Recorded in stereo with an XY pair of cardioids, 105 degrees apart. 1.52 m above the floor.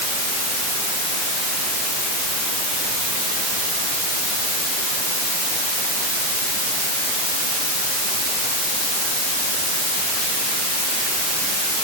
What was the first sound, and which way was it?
Only background noise.